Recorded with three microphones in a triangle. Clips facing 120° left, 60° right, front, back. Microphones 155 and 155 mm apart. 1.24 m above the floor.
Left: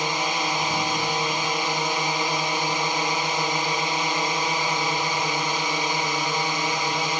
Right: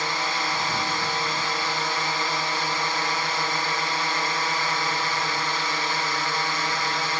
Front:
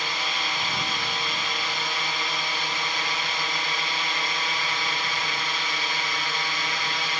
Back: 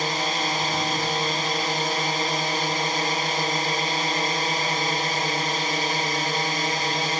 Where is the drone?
Straight behind.